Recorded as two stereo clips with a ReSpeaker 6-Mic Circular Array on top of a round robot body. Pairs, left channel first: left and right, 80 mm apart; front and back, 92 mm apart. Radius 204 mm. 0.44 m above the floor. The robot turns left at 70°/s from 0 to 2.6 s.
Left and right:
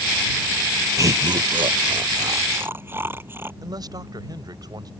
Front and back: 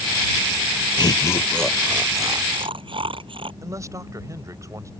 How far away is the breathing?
No breathing in this recording.